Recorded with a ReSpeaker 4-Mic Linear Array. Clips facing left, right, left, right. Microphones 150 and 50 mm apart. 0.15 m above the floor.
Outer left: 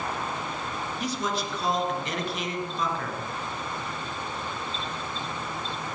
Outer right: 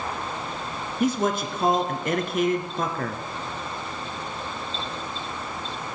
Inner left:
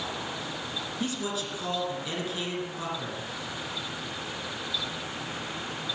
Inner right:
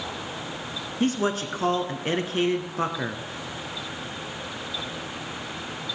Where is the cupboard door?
I don't hear a cupboard door.